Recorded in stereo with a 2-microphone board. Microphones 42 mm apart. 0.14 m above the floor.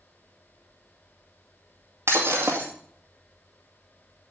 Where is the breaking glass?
75° right (ahead or behind), 2 m.